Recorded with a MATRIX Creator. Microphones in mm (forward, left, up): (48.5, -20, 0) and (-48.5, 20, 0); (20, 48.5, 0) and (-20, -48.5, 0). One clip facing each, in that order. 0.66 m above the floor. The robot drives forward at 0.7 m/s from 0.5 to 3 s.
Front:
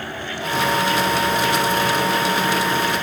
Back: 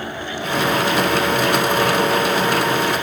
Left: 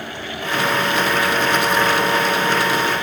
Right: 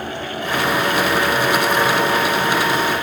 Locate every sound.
Only background noise.